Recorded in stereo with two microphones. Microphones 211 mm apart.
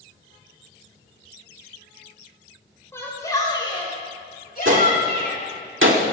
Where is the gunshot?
75° right (ahead or behind), 1.3 m.